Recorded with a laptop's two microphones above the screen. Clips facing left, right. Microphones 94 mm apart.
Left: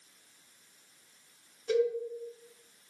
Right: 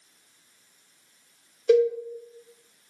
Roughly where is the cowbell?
Right.